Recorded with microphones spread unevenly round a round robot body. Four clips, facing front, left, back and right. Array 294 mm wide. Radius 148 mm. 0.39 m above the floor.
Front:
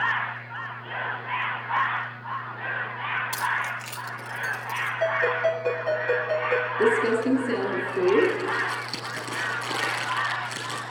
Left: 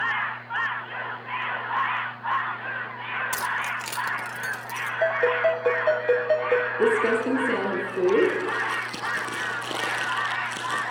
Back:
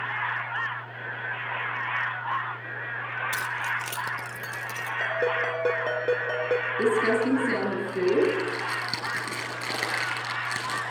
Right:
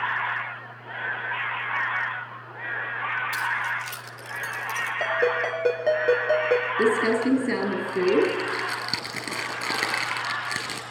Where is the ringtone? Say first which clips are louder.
Left 3 dB, front 3 dB; 150° right, 4.5 m.